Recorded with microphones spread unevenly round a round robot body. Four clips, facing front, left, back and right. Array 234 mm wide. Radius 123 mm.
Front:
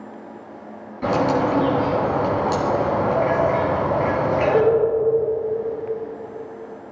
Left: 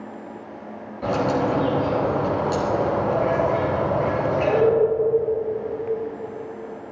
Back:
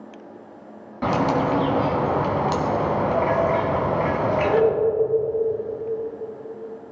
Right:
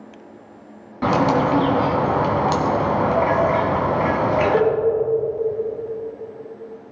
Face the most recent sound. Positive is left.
turn(degrees=-105)